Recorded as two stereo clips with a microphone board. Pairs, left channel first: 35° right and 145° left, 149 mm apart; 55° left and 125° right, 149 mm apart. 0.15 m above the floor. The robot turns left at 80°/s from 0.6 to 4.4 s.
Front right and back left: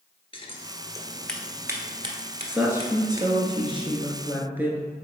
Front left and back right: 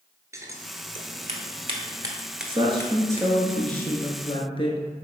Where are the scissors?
65° right, 1.0 m; by 3.3 s 85° left, 1.0 m.